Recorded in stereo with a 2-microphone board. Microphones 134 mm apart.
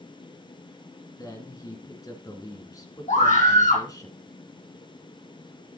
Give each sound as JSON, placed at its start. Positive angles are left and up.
{"t": 1.2, "sound": "a man speaking", "side_deg": 25, "distance_m": 2.0}
{"t": 3.1, "sound": "a scream", "side_deg": 75, "distance_m": 6.0}